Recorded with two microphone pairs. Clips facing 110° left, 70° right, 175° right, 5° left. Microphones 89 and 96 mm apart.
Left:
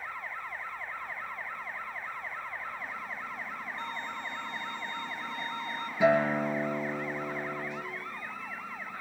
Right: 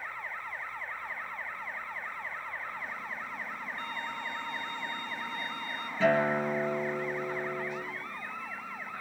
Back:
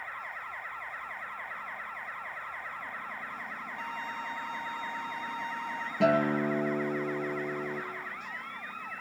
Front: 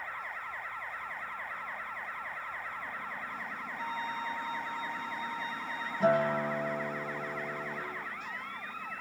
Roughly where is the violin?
Behind.